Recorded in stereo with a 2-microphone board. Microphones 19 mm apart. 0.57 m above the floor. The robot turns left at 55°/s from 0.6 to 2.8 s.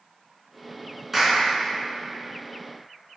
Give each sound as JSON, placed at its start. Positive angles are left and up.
{"t": 1.1, "sound": "a clap", "side_deg": -10, "distance_m": 4.0}